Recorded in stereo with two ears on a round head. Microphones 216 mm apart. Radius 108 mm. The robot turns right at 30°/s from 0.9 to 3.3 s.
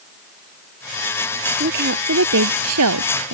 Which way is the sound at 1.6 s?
140° right.